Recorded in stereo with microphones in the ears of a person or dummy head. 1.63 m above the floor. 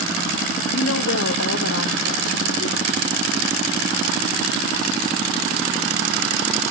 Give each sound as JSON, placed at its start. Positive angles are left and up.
{"t": 0.7, "sound": "a woman speaking", "side_deg": 85, "distance_m": 1.0}